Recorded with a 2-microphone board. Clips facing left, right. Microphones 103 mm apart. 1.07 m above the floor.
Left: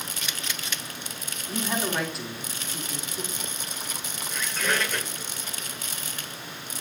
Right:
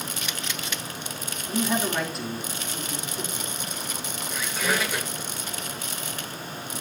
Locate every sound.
1.5 s a man speaking: centre (ahead or behind), 3.5 m
4.3 s a squeak: 5° right (ahead or behind), 1.3 m